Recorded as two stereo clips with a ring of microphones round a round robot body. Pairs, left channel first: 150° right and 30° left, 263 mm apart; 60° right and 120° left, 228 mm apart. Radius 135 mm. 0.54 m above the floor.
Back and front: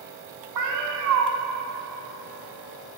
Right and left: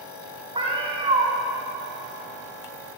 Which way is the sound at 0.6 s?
55° left.